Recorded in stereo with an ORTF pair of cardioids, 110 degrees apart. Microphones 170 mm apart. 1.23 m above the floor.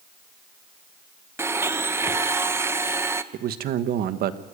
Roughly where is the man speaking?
Ahead right.